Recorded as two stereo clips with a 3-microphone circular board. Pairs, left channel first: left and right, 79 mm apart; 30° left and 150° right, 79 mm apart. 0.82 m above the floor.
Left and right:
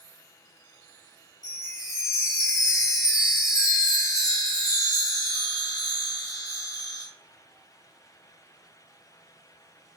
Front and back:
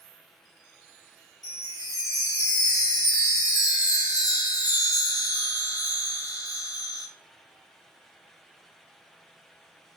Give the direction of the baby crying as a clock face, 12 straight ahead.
No baby crying in this recording.